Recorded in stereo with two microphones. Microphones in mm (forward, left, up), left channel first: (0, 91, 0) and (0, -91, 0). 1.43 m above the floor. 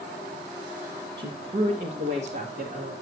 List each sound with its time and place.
1.2 s a woman speaking: 60° right (ahead or behind), 1.5 m; by 2.9 s 65° right (ahead or behind), 2.5 m